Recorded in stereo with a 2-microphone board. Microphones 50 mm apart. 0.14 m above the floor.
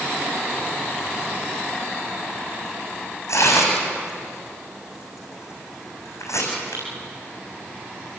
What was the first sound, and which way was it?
Tearing paper, 80° left.